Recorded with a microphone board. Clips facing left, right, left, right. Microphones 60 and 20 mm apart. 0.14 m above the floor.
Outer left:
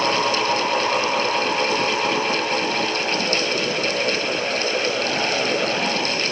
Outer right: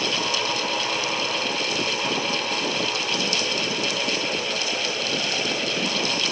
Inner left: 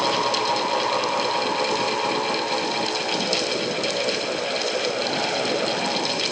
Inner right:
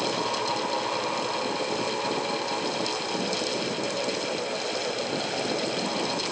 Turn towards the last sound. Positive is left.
No sound to turn to.